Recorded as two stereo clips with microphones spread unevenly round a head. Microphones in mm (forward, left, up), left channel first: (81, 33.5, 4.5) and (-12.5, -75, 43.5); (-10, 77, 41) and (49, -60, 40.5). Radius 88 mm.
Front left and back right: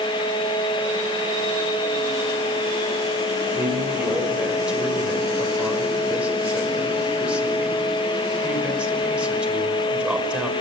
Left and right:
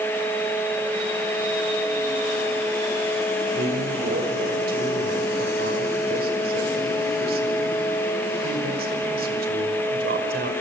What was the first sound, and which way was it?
A man speaking, 50° right.